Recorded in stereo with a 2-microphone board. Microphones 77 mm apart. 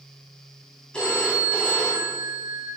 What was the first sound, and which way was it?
A phone ringing, 15° left (ahead or behind).